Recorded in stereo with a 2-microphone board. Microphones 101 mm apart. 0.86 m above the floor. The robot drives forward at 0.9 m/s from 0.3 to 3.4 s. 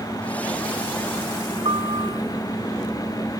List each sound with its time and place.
1.6 s a piano: 60° right (ahead or behind)